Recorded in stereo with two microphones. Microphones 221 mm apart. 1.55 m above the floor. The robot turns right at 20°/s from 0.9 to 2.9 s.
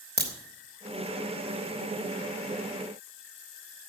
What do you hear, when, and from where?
0.2 s a crack: 45° right (ahead or behind), 3 m